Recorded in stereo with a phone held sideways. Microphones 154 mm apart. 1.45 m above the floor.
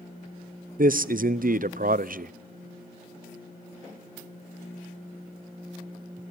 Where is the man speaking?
65° right (ahead or behind), 0.8 m.